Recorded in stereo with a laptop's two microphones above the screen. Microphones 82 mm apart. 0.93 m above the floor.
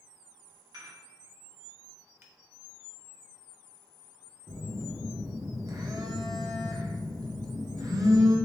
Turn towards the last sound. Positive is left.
turn(degrees=-50)  # may be behind; listen again after turning